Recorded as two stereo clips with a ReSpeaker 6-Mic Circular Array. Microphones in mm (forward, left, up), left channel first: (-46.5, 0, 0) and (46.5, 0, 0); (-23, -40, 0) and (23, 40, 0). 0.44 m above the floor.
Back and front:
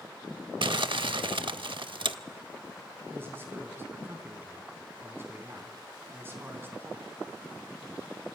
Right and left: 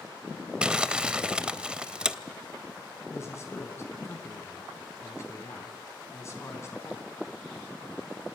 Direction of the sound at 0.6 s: 20° right.